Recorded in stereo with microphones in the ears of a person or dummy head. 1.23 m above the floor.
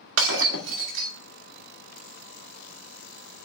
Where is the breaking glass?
75° right (ahead or behind), 1.6 m.